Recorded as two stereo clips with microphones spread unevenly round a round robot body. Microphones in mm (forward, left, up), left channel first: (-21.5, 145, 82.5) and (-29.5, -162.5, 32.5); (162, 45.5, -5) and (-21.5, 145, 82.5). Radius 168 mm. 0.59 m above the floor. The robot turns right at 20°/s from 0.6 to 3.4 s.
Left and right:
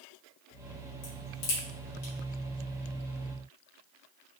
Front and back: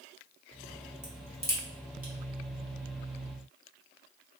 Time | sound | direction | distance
1.0 | a crack | 70° left | 1.9 m